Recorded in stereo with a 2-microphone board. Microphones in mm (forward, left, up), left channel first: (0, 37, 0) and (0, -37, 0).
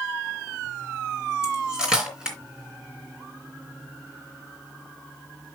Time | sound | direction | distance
1.4 | cutlery clinking | 10° right (ahead or behind) | 2.5 m